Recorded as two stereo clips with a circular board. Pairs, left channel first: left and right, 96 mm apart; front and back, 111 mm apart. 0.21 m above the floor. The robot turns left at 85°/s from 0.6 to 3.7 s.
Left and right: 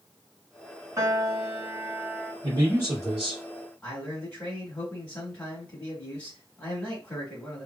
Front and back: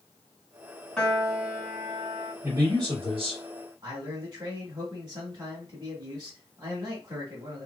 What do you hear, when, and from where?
1.0 s a piano: 75° right, 1.0 m; by 2.3 s 165° left, 1.0 m
2.4 s a man speaking: 110° right, 1.9 m; by 3.4 s 165° left, 1.9 m
3.8 s a man speaking: 160° left, 1.6 m